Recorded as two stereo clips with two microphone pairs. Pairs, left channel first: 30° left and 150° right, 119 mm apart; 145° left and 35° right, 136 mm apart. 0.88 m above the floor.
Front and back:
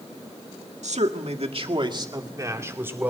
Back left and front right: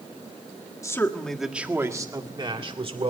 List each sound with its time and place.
0.8 s a man speaking: 150° right, 1.6 m; by 3.1 s 75° right, 3 m